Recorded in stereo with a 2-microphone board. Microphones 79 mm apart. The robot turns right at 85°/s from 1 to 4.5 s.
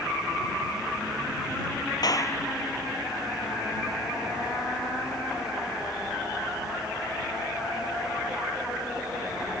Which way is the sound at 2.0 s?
115° left.